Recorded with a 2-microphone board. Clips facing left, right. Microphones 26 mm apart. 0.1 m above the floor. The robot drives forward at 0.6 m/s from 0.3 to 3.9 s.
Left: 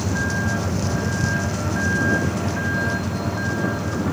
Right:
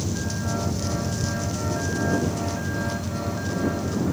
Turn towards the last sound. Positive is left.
turn(degrees=30)  # may be behind; listen again after turning